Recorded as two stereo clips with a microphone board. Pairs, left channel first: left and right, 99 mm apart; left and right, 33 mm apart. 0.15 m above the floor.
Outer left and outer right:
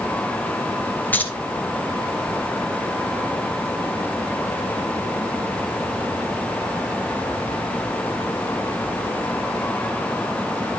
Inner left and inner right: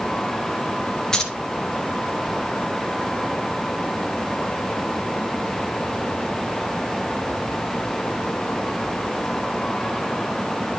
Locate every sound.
1.1 s keys jangling: 20° left (ahead or behind), 1.7 m